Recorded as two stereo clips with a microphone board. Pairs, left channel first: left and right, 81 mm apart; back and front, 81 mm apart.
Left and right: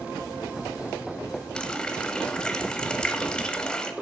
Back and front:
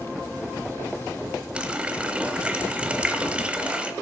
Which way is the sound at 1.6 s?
35° left.